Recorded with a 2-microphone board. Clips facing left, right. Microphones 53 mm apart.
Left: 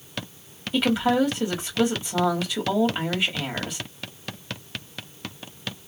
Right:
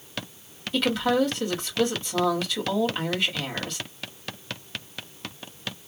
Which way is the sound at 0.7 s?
15° left (ahead or behind).